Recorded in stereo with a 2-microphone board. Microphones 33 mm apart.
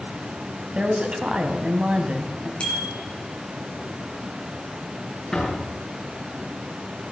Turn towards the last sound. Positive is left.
turn(degrees=20)  # may be behind; listen again after turning